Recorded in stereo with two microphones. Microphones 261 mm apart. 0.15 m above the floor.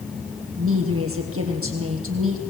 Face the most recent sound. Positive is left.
turn(degrees=-60)  # may be behind; listen again after turning